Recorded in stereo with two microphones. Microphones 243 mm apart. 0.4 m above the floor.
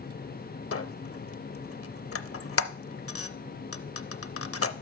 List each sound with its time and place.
0.7 s a squeak: 65° left (ahead or behind), 0.5 m